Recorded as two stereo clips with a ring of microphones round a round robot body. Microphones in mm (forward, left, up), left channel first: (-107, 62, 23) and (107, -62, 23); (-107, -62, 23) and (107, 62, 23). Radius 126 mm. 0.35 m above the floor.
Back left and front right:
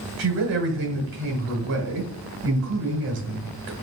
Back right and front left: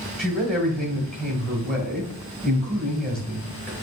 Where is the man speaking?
65° right, 1.8 m.